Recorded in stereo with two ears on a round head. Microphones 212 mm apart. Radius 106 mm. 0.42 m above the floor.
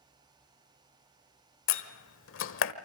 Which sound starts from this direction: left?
A door slam, at 1.7 s.